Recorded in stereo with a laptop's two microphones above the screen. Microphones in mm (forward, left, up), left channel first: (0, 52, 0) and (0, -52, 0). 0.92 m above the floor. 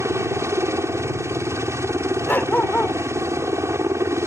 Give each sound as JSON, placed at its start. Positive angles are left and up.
{"t": 0.0, "sound": "a helicopter", "side_deg": -25}
{"t": 2.3, "sound": "a dog barking", "side_deg": 20}